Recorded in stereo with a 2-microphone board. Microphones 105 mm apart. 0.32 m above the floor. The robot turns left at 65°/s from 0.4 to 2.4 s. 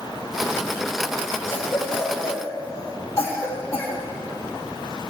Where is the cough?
45° left (ahead or behind), 2 m; by 4.0 s 35° left (ahead or behind), 2 m.